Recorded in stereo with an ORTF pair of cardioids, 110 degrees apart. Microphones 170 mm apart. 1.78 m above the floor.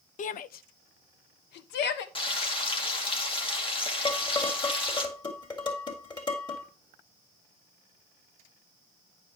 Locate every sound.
0.2 s a shout: 50° left, 0.7 m; by 2.0 s 80° left, 1.7 m
2.1 s frying: 30° left, 2.5 m
4.0 s dishes clattering: 25° left, 3.5 m